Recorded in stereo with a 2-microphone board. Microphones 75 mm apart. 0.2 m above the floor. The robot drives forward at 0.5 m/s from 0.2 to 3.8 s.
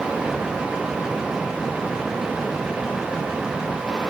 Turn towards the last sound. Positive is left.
No sound to turn to.